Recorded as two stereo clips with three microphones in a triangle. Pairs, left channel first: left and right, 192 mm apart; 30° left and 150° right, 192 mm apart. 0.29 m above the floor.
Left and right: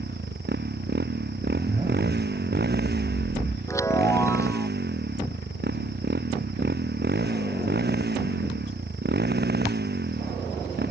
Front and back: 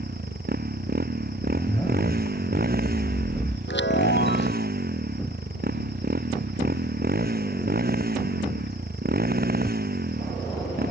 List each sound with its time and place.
0.0 s a motorcycle: 115° right
1.5 s a zipper: 35° right
3.7 s a chime: 15° left